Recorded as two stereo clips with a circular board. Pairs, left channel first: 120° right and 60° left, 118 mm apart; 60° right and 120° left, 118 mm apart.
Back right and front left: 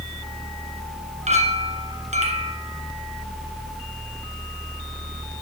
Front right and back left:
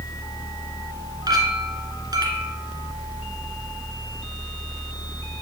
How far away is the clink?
About 2.5 m.